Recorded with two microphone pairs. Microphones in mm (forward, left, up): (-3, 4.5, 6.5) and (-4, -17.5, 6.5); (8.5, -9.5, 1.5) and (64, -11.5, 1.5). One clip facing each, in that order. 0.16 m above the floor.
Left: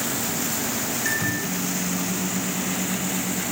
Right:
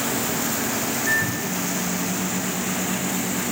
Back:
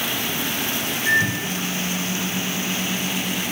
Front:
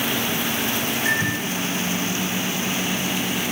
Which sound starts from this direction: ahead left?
A microwave, at 1.1 s.